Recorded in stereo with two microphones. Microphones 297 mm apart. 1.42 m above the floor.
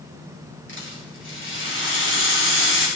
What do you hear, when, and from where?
0.7 s a rattle: 40° left (ahead or behind), 2.5 m